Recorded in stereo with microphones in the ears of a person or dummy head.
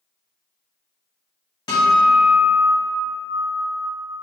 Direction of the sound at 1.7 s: 25° left (ahead or behind).